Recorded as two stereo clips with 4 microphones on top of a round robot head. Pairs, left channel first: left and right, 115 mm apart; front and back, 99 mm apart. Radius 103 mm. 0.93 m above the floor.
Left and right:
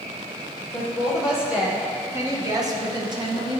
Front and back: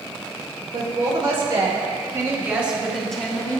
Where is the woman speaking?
Straight behind, 1.6 m; by 3.6 s 60° right, 1.2 m.